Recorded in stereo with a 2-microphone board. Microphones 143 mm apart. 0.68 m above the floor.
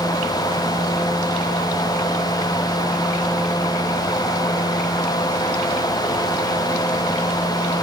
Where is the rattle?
No rattle in this recording.